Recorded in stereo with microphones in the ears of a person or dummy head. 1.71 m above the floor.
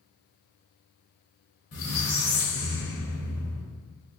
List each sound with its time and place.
1.7 s a squeak: 40° left (ahead or behind), 1.2 m